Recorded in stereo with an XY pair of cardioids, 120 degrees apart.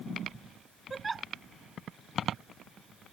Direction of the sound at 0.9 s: 25° right.